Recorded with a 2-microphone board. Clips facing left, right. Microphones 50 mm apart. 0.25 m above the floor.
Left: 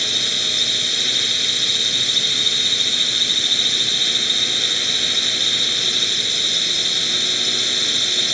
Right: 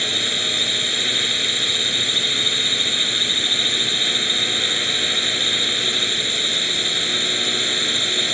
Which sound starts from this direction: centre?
A drone, at 0.0 s.